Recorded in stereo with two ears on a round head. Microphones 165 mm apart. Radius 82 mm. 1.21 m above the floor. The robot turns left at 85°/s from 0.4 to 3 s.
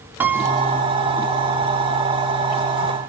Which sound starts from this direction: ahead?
A piano, at 0.2 s.